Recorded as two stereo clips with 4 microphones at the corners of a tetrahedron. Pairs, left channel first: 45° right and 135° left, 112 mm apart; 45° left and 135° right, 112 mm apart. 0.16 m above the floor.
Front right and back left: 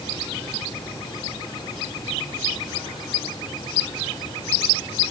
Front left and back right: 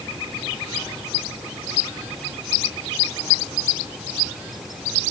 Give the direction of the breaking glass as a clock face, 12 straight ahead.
I don't hear breaking glass.